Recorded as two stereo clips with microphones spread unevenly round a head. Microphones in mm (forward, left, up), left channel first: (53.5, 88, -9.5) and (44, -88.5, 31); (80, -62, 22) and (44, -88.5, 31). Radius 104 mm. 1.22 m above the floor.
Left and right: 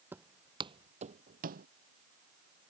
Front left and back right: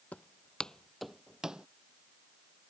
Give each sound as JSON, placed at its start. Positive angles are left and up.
{"t": 0.1, "sound": "footsteps", "azimuth_deg": -25}